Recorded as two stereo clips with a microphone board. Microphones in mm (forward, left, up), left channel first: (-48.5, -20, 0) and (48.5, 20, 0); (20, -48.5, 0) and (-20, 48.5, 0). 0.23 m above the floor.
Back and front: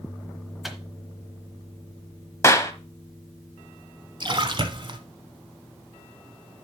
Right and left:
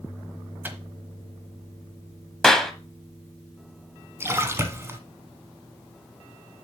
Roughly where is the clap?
Behind right.